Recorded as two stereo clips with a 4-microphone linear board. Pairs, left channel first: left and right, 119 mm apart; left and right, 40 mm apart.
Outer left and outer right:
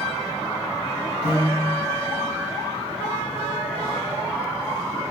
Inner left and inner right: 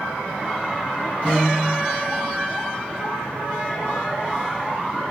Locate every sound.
1.2 s a piano: 50° left (ahead or behind), 1.7 m